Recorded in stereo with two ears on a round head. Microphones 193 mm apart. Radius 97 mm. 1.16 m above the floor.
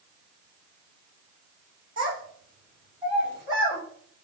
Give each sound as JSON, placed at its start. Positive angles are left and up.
{"t": 2.0, "sound": "a child speaking", "side_deg": -25, "distance_m": 2.5}